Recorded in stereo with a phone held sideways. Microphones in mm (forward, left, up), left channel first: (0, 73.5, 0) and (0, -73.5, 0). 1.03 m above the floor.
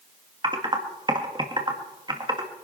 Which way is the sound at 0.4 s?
30° right (ahead or behind).